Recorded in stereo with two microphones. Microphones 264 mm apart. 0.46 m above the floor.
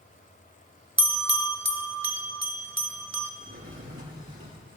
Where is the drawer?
55° right (ahead or behind), 7 m.